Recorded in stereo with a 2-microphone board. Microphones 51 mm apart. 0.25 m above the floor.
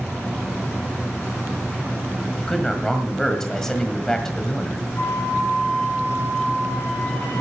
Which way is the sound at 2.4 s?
10° left (ahead or behind).